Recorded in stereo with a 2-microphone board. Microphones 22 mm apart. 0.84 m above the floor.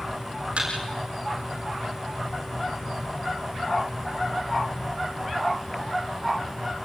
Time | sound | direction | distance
0.6 | a thud | 75° right (ahead or behind) | 7.5 m